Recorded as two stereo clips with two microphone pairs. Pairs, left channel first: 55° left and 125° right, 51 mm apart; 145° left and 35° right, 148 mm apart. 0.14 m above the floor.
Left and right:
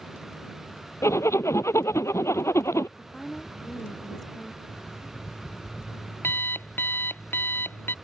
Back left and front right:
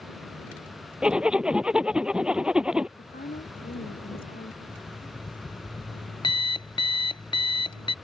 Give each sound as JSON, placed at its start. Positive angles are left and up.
{"t": 1.0, "sound": "a zipper", "azimuth_deg": 50}
{"t": 3.0, "sound": "a woman speaking", "azimuth_deg": 145}
{"t": 4.7, "sound": "an alarm clock", "azimuth_deg": 95}